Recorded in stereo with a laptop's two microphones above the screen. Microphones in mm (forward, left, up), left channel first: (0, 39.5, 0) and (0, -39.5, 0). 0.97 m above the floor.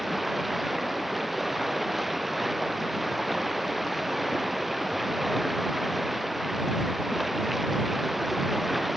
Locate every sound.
0.0 s running water: centre (ahead or behind)